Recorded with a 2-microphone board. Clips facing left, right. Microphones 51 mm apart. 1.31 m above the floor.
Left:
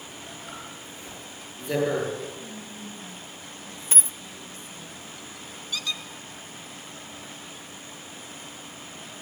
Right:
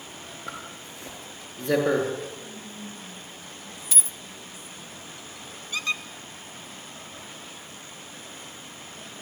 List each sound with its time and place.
0.5 s a zipper: 75° right (ahead or behind), 8 m
2.4 s whispering: 10° right (ahead or behind), 8 m
3.9 s a dropped coin: 30° left (ahead or behind), 0.8 m
5.7 s a squeak: 35° right (ahead or behind), 1.0 m